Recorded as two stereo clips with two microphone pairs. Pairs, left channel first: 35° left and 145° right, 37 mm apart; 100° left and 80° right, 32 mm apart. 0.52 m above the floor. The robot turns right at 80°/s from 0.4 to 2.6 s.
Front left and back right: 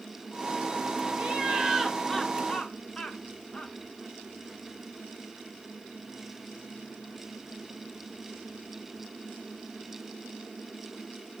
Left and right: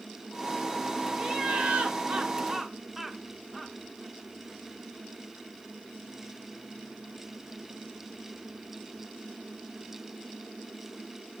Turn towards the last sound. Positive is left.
turn(degrees=-10)